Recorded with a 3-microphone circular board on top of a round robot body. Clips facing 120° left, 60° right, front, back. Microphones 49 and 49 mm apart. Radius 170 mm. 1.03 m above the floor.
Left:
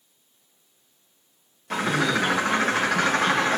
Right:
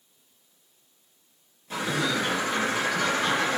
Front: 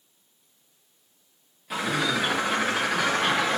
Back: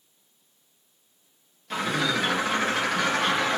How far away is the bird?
About 0.6 m.